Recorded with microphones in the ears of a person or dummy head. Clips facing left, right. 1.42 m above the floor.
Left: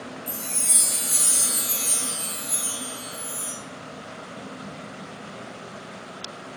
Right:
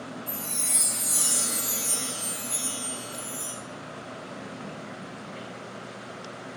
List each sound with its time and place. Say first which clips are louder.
0.3 s a chime: left 1 dB; 20° left (ahead or behind), 0.7 m